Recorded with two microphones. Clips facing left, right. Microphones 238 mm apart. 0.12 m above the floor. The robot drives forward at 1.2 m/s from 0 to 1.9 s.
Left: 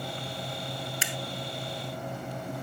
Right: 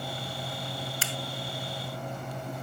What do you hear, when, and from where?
1.0 s a finger snap: 20° left (ahead or behind)